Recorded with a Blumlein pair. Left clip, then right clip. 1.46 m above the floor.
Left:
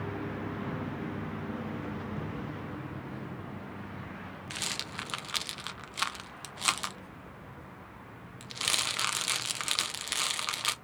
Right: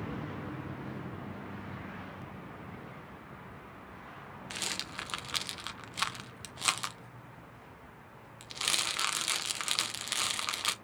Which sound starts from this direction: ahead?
A rattle, at 4.5 s.